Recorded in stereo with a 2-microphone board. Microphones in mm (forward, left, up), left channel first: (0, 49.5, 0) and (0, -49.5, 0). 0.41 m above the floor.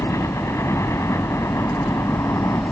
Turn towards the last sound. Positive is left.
turn(degrees=30)  # may be behind; listen again after turning